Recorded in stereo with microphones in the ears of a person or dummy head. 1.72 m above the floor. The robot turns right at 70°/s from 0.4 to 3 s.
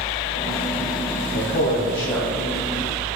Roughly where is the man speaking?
Left.